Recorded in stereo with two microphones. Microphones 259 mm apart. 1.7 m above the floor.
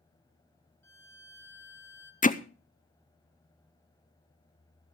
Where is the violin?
75° left (ahead or behind), 1.3 m.